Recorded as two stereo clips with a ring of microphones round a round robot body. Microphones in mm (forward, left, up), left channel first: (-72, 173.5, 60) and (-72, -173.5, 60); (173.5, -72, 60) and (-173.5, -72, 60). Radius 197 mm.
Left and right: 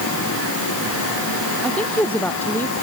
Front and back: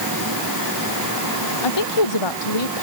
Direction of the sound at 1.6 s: 5° left.